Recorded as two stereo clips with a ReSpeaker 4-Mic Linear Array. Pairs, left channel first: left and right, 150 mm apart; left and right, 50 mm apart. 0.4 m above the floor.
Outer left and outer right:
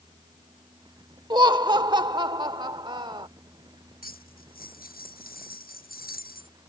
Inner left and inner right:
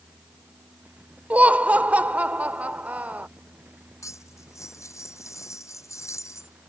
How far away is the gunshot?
I don't hear a gunshot.